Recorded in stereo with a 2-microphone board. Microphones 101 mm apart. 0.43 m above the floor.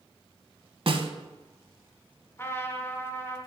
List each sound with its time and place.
0.9 s a snare drum: 60° right (ahead or behind), 0.7 m
2.4 s a trumpet: 25° left (ahead or behind), 1.4 m